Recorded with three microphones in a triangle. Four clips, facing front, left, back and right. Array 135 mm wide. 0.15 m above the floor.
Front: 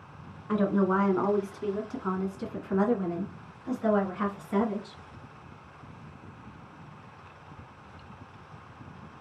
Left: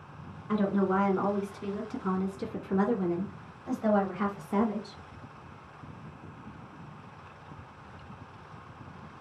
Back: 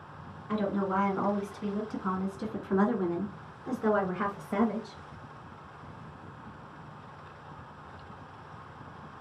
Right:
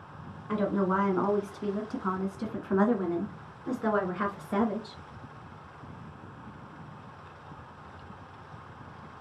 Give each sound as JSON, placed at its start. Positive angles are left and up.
{"t": 0.5, "sound": "a woman speaking", "azimuth_deg": -20, "distance_m": 1.5}